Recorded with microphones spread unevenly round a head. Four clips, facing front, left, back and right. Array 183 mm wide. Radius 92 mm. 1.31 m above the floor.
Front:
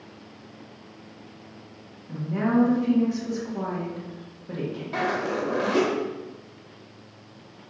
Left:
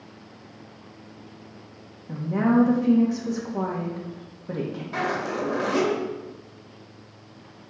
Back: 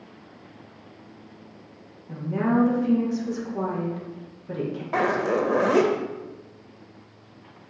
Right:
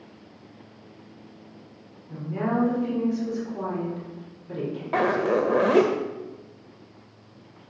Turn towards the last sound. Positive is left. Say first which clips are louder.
# right 6 dB, back 4 dB
turn(degrees=-115)